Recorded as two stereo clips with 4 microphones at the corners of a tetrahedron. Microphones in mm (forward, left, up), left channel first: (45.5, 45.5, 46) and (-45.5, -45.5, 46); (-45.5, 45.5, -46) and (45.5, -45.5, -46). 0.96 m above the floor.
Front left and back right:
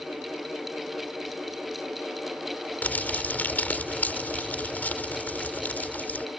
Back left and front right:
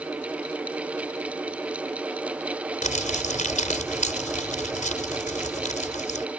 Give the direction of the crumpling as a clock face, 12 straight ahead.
8 o'clock.